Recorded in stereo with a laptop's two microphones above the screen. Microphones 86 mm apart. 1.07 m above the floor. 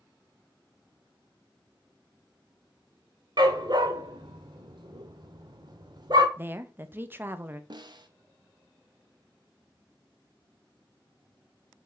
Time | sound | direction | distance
3.4 | a dog barking | 55° right (ahead or behind) | 1.1 m
6.4 | a woman speaking | 25° right (ahead or behind) | 0.5 m
7.7 | a snare drum | 60° right (ahead or behind) | 0.8 m